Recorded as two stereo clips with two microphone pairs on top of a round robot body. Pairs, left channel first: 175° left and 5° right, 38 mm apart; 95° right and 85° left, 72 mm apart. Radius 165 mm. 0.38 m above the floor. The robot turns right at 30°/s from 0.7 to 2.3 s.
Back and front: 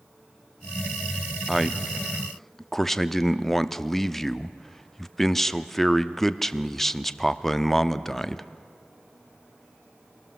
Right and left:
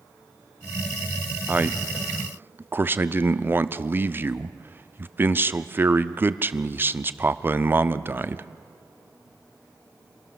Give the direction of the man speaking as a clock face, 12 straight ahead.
10 o'clock.